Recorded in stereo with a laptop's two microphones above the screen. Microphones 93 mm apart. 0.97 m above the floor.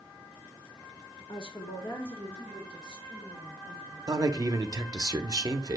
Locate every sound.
1.3 s a woman speaking: 75° left (ahead or behind), 0.8 m; by 4.0 s 15° right (ahead or behind), 3 m
4.1 s a man speaking: 40° right (ahead or behind), 0.5 m